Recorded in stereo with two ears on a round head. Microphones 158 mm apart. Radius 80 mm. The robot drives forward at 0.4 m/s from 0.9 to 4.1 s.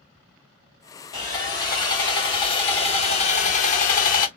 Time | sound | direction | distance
1.1 | sawing | 20° left (ahead or behind) | 1.7 m